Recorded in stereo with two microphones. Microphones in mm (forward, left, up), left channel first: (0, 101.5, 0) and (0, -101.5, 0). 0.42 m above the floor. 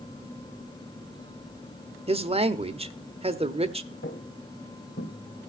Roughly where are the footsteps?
Left.